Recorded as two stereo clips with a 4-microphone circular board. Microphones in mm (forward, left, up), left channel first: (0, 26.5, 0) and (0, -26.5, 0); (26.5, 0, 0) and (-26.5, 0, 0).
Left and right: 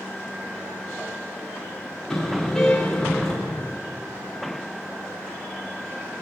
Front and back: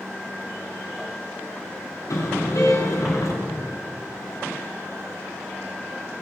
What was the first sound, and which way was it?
A car horn, 10° left.